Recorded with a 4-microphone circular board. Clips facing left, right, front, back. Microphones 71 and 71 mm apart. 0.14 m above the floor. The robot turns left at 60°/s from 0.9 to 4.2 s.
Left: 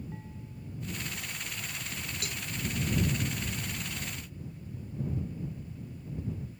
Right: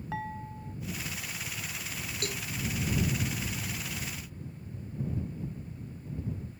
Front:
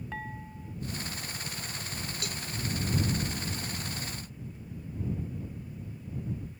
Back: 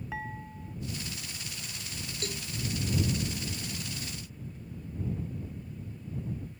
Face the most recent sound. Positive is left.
turn(degrees=110)